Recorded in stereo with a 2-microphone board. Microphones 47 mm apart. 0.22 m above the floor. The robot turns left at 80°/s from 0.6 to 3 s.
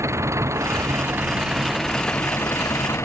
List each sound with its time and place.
0.0 s an engine running: 90° right; by 3.0 s 80° left